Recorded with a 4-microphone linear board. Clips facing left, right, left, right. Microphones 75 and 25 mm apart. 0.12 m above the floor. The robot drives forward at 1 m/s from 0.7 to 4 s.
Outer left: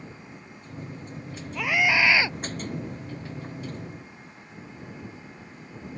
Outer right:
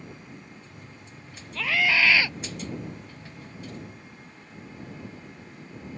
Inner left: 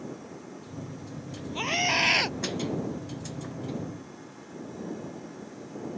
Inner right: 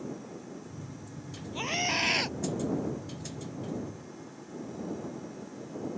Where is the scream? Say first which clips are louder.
Outer left 1 dB, inner left 4 dB; 15° left (ahead or behind); by 2.4 s 25° left (ahead or behind).